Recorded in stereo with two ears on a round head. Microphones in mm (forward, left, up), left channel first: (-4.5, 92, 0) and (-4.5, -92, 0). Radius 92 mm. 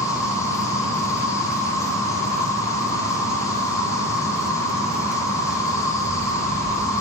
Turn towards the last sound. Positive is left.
turn(degrees=15)  # may be behind; listen again after turning